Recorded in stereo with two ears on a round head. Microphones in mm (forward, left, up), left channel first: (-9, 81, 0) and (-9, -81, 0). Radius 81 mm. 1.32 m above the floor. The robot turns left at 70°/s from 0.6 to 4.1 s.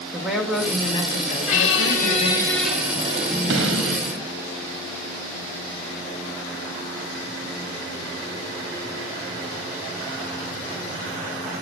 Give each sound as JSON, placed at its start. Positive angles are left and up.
{"t": 0.1, "sound": "a woman speaking", "azimuth_deg": 180, "distance_m": 2.0}
{"t": 1.5, "sound": "a squeak", "azimuth_deg": 85, "distance_m": 2.0}